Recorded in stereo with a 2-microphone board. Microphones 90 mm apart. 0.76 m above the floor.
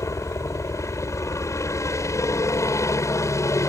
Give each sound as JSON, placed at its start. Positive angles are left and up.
{"t": 0.0, "sound": "a helicopter", "side_deg": 35}